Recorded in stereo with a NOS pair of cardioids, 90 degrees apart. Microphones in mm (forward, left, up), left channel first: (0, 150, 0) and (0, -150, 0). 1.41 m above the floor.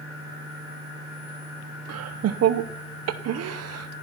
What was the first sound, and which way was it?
Laughter, 55° right.